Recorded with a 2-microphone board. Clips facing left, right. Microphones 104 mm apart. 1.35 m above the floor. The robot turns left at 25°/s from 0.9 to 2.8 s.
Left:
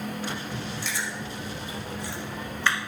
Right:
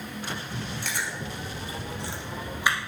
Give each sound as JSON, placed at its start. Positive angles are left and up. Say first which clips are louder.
{"t": 0.8, "sound": "chewing", "louder": "even", "side_deg": -55, "distance_m": 2.5}